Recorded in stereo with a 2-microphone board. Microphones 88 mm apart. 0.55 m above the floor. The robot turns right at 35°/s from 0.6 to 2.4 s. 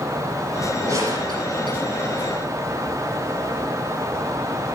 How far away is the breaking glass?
No breaking glass in this recording.